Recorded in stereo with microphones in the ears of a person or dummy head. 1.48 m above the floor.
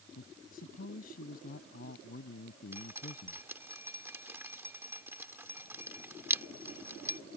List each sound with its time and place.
0.1 s a man speaking: 55° left (ahead or behind)
2.7 s dripping: 15° right (ahead or behind)